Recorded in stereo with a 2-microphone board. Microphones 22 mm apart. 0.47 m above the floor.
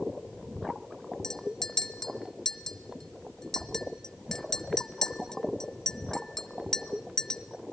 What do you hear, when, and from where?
1.2 s a clink: 35° left (ahead or behind), 1.5 m